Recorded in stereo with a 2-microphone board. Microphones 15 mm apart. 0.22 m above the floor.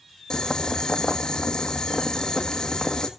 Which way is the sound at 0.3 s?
50° left (ahead or behind).